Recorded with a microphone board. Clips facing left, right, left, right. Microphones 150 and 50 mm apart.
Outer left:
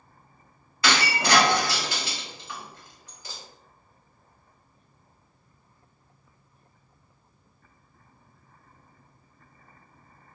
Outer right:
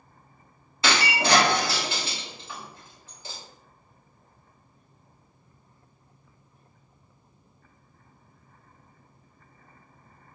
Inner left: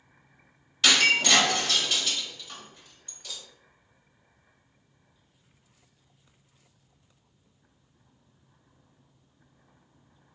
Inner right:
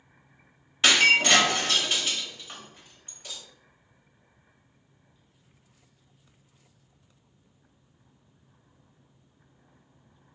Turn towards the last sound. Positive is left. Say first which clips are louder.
# even, inner right 2 dB
turn(degrees=-25)  # may be behind; listen again after turning